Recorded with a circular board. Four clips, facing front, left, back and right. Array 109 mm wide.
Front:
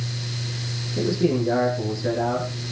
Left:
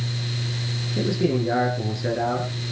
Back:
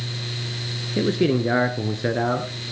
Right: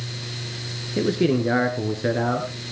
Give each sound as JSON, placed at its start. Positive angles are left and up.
{"t": 1.0, "sound": "a man speaking", "azimuth_deg": -145, "distance_m": 2.0}